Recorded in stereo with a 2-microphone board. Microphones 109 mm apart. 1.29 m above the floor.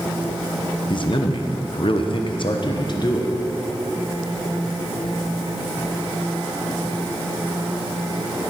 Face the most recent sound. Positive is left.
turn(degrees=40)  # may be behind; listen again after turning